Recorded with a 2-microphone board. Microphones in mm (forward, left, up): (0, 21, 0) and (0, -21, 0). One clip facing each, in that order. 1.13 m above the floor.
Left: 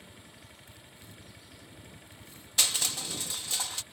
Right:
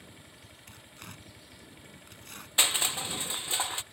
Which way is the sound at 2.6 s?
25° right (ahead or behind).